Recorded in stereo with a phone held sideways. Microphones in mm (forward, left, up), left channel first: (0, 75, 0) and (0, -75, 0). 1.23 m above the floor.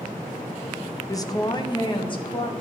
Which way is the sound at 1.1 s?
20° left (ahead or behind).